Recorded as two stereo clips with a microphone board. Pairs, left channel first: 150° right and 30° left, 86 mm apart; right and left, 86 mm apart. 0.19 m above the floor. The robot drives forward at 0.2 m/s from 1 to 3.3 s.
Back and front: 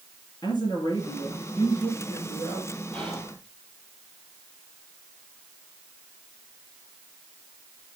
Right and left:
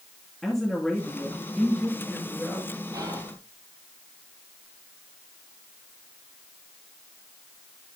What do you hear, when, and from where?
0.4 s a woman speaking: 175° right, 3.5 m
2.9 s whispering: 135° left, 5 m